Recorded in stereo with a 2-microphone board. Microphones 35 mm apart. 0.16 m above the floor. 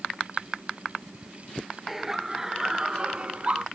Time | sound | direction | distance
1.9 | laughter | 10° right (ahead or behind) | ?